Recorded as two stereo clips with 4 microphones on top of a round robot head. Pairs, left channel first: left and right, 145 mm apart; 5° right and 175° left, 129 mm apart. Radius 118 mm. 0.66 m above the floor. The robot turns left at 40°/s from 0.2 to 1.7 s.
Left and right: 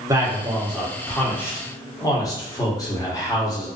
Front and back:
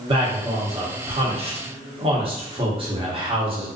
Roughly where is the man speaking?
Behind right.